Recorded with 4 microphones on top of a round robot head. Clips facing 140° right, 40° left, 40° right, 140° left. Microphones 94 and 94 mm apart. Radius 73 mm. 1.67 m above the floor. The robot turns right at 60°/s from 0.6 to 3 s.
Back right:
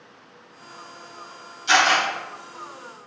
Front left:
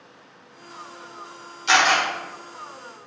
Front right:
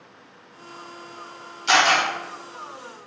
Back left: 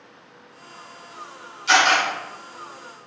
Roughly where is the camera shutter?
Ahead.